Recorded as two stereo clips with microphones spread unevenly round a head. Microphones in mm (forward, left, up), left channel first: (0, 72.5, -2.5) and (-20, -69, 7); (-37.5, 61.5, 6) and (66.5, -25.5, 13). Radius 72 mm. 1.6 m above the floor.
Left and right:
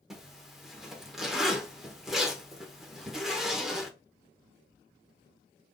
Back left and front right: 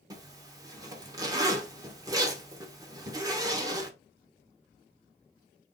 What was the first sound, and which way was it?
A zipper, 20° right.